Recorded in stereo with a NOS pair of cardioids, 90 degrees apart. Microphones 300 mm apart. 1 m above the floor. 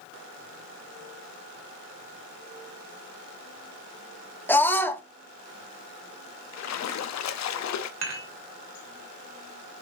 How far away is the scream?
About 1.6 m.